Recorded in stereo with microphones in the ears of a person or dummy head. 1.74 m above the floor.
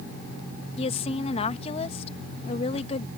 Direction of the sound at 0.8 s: 35° left (ahead or behind).